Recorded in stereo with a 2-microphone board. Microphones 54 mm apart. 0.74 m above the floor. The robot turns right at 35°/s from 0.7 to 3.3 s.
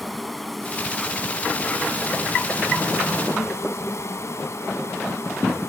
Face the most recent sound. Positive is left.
turn(degrees=95)